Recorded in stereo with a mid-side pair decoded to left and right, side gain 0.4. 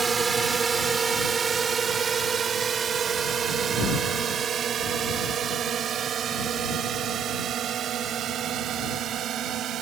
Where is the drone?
45° right; by 9.8 s 75° right.